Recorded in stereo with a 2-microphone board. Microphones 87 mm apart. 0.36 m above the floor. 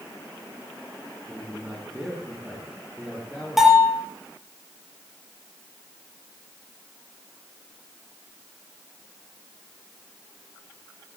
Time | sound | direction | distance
1.3 | a man speaking | 10° right (ahead or behind) | 5 m
3.6 | a bell | 5° right (ahead or behind) | 6 m